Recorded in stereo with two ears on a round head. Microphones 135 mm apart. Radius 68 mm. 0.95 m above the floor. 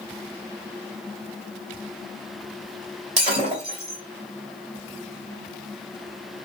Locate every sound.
3.2 s breaking glass: 50° right (ahead or behind), 2 m